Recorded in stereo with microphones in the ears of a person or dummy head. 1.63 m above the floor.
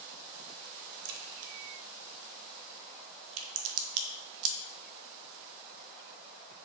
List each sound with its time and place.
1.1 s a crack: 85° right, 0.6 m